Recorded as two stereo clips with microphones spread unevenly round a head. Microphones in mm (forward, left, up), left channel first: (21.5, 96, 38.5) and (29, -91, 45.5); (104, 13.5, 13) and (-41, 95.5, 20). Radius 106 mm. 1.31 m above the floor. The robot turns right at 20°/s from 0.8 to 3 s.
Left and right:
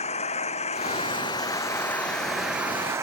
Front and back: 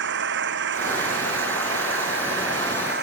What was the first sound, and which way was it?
An engine running, 150° left.